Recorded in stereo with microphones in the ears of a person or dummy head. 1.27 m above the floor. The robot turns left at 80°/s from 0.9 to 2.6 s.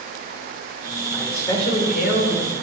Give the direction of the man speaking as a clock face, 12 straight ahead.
6 o'clock.